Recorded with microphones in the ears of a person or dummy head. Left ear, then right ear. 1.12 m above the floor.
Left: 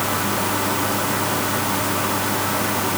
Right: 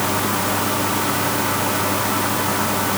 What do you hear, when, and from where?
Only background noise.